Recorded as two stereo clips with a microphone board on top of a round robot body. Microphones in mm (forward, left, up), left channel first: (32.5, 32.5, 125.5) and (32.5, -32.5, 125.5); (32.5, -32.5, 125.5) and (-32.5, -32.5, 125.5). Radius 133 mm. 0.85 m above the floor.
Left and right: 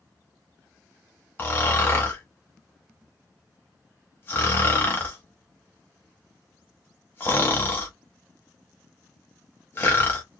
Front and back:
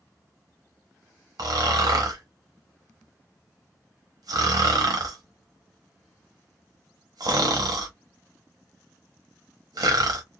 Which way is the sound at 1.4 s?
155° left.